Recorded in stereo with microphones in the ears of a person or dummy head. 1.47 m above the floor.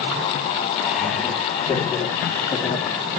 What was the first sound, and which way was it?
Laughter, 5° right (ahead or behind).